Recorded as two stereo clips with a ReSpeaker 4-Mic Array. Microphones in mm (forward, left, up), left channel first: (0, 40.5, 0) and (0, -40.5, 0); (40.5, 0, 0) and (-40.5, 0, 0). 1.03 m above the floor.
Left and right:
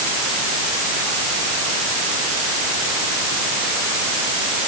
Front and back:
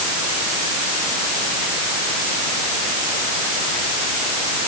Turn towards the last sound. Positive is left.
No sound to turn to.